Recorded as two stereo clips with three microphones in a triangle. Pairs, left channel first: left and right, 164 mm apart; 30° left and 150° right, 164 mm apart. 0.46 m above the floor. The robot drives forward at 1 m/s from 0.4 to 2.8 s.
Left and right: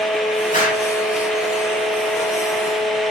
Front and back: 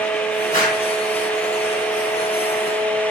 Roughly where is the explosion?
Ahead left.